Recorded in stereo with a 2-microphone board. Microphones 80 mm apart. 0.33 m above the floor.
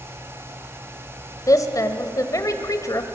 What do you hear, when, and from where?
1.5 s a woman speaking: 45° left (ahead or behind), 1.4 m